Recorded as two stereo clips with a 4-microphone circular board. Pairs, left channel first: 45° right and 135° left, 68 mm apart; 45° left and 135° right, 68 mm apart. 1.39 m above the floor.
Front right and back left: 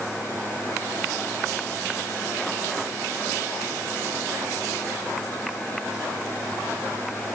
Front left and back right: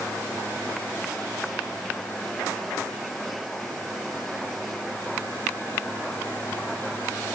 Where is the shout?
I don't hear a shout.